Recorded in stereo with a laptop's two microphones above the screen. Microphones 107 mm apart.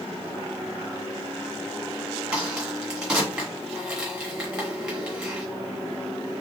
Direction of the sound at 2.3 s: 10° right (ahead or behind).